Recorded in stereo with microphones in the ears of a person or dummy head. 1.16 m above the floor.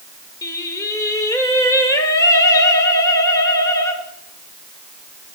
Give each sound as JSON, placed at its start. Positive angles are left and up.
{"t": 0.4, "sound": "singing", "side_deg": 20, "distance_m": 1.8}